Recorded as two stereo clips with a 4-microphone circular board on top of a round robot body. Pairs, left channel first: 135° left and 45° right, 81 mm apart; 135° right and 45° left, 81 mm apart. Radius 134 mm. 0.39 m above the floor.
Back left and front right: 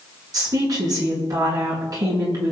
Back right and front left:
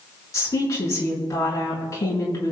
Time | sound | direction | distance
0.3 | a woman speaking | 85° right | 7 m